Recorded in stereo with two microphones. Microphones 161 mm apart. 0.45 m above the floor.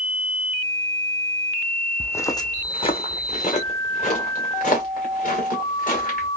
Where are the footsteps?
10° left (ahead or behind), 0.7 m; by 6.3 s 60° left (ahead or behind), 3 m.